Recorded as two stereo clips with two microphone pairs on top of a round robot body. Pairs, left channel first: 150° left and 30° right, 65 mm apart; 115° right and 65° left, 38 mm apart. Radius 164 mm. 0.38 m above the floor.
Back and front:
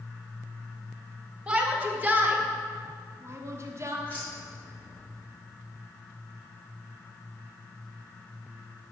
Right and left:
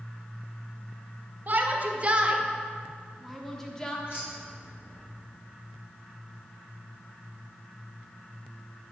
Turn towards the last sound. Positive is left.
turn(degrees=-145)